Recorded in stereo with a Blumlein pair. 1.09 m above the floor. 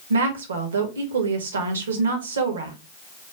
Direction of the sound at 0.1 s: 65° right.